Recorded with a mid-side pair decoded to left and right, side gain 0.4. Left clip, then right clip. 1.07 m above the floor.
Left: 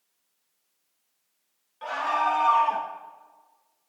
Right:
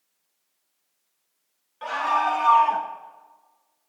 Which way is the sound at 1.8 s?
30° right.